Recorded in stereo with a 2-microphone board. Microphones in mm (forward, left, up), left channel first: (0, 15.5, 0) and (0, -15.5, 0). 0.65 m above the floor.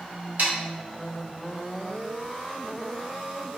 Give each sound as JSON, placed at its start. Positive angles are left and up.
{"t": 0.4, "sound": "sawing", "side_deg": -60, "distance_m": 0.7}